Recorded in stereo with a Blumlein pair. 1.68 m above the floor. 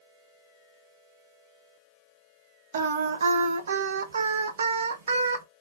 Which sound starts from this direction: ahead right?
Singing, at 2.7 s.